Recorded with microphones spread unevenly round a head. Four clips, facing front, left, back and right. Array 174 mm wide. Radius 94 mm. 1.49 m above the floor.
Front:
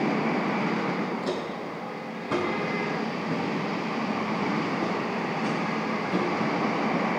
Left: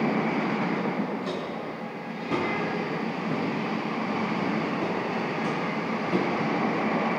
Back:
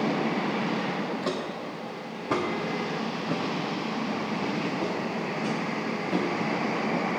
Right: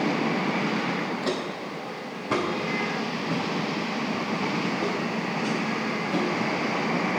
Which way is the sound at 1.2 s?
160° right.